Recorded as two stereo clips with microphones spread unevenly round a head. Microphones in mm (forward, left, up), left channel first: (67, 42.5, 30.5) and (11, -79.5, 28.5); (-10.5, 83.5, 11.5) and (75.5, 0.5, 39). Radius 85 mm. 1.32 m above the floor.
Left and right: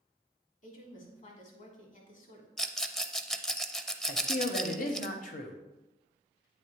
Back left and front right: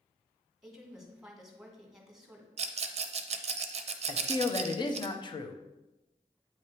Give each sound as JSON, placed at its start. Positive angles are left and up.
{"t": 0.6, "sound": "a woman speaking", "azimuth_deg": 40, "distance_m": 1.8}
{"t": 2.6, "sound": "a rattle", "azimuth_deg": -20, "distance_m": 0.6}
{"t": 4.1, "sound": "a man speaking", "azimuth_deg": 90, "distance_m": 0.9}